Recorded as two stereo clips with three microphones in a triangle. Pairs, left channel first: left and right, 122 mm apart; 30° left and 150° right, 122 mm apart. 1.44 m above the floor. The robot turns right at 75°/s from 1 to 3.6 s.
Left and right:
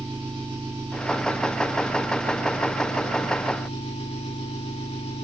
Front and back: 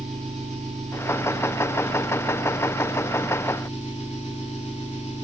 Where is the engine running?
140° right, 8 m; by 5.2 s 55° left, 8 m.